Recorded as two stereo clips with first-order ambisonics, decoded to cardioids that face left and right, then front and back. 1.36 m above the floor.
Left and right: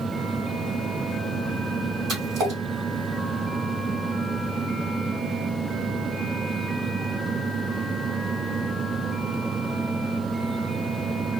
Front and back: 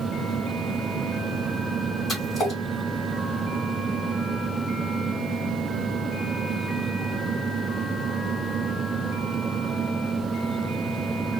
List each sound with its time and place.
2.1 s a splash: 55° right, 1.6 m